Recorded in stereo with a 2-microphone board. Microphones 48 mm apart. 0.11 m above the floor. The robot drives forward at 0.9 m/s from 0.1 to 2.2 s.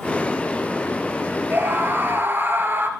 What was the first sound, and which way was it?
A scream, 45° right (ahead or behind).